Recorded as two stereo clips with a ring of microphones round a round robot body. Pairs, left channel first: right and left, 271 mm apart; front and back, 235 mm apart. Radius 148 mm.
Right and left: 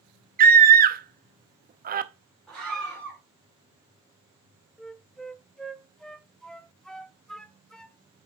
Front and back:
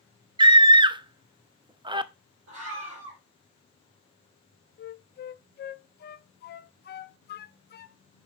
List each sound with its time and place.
0.4 s a scream: 120° left, 0.7 m
2.5 s a scream: straight behind, 2.5 m
4.8 s a flute: 5° right, 0.5 m